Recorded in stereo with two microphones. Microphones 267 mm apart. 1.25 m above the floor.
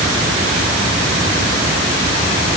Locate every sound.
Only background noise.